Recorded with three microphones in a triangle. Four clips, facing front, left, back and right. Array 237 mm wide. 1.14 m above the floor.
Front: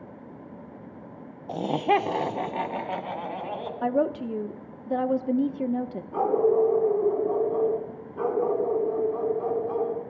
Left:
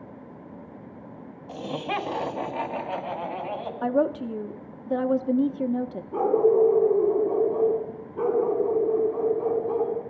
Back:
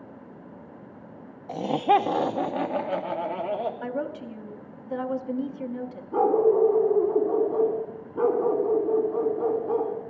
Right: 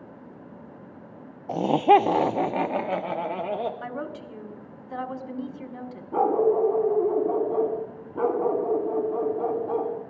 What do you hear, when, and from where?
1.5 s laughter: 80° right, 0.5 m; by 3.7 s 115° right, 1.5 m
3.8 s a woman speaking: 30° left, 0.8 m
6.1 s a dog barking: 90° right, 2.5 m